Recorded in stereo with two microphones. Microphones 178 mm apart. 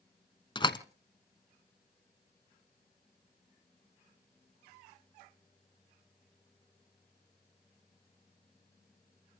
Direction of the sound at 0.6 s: 25° left (ahead or behind).